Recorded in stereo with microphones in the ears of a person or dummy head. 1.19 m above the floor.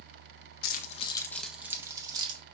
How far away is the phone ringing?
No phone ringing in this recording.